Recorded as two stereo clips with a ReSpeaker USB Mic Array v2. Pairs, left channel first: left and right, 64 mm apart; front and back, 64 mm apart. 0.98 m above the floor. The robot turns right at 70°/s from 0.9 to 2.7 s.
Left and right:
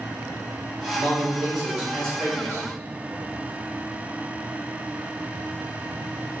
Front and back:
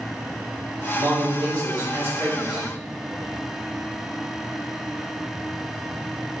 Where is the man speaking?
140° left, 1.8 m; by 2.7 s 105° right, 1.8 m.